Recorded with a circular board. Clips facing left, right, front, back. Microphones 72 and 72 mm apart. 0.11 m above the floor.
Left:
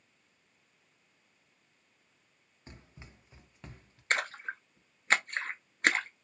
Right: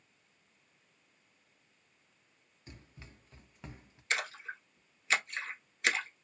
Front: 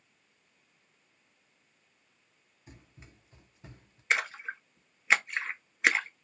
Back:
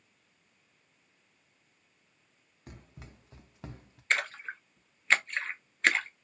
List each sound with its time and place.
2.7 s running footsteps: 150° left, 1.0 m; by 4.0 s 160° right, 0.8 m
4.1 s a splash: 80° left, 0.6 m